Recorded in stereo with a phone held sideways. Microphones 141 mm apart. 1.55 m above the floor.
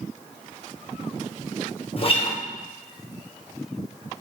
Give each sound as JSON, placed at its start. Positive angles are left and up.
{"t": 2.0, "sound": "a guitar", "side_deg": 40, "distance_m": 0.7}